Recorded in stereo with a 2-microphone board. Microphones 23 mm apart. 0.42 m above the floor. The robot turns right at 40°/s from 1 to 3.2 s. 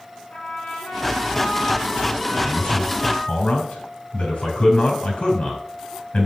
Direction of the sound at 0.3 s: 85° left.